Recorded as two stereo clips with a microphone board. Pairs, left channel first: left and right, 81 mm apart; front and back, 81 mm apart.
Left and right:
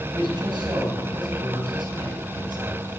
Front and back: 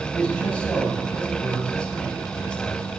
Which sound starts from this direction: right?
A man speaking, at 0.1 s.